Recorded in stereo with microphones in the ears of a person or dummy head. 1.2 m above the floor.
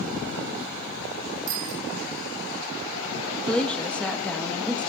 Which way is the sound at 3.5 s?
5° left (ahead or behind).